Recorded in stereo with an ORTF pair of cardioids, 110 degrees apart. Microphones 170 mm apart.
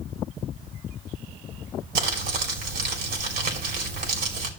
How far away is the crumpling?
About 2.5 m.